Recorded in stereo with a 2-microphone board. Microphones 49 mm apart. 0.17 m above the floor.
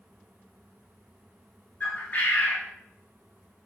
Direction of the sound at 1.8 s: 35° left (ahead or behind).